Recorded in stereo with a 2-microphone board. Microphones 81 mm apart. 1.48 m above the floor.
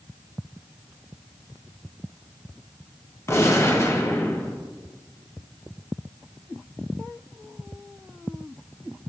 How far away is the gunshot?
About 0.7 m.